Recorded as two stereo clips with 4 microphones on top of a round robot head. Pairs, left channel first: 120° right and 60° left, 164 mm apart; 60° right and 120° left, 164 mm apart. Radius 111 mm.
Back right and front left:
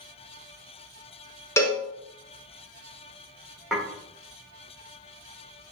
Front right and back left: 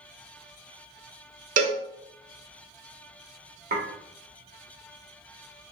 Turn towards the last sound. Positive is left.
turn(degrees=145)